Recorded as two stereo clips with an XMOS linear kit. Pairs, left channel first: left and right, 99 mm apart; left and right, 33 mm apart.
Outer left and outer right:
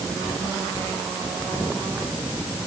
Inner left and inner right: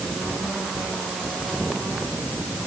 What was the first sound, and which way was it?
Only background noise.